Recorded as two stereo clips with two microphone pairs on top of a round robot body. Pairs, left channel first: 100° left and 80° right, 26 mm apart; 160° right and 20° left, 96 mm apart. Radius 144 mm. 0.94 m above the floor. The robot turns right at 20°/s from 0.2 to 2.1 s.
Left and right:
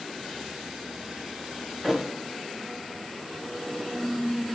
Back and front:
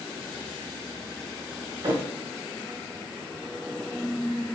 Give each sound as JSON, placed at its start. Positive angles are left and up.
{"t": 1.8, "sound": "a thud", "azimuth_deg": -5, "distance_m": 2.5}